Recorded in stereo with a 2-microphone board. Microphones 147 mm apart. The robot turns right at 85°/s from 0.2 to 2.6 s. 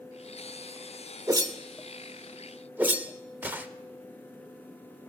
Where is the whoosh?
20° right (ahead or behind), 0.5 m; by 3.7 s 10° right (ahead or behind), 0.5 m.